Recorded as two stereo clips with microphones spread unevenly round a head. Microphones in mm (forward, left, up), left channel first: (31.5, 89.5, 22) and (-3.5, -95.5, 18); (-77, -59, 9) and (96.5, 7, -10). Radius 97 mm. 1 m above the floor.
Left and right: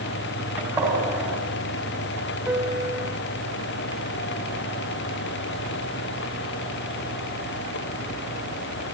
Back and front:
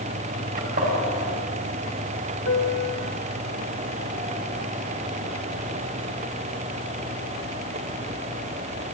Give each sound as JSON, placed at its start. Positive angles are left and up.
{"t": 0.6, "sound": "a gunshot", "azimuth_deg": -20, "distance_m": 7.0}
{"t": 2.5, "sound": "a piano", "azimuth_deg": 180, "distance_m": 1.7}